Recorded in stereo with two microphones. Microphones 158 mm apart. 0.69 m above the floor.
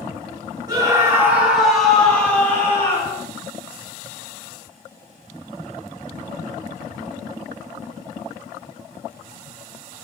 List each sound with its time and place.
0.7 s a scream: 25° right (ahead or behind), 1.8 m; by 3.2 s 25° left (ahead or behind), 2.5 m